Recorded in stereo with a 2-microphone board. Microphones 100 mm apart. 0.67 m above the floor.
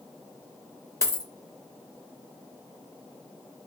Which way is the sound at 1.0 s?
30° left (ahead or behind).